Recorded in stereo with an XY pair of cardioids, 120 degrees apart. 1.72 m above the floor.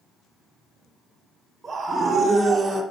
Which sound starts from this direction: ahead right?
A scream, at 1.6 s.